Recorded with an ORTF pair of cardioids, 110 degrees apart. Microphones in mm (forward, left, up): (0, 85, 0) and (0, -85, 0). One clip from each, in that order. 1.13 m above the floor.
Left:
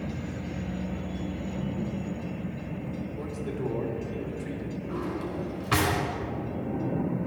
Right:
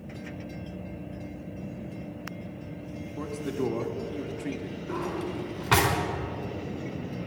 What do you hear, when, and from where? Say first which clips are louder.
3.2 s a man speaking: right 5 dB; 50° right, 2.5 m
4.9 s a drawer: right 2 dB; 45° right, 4.5 m